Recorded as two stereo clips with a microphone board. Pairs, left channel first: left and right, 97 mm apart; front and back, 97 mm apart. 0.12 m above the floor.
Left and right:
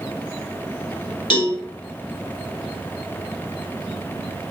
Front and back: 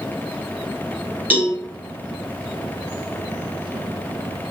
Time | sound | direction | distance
1.3 | a cowbell | 115° left | 1.2 m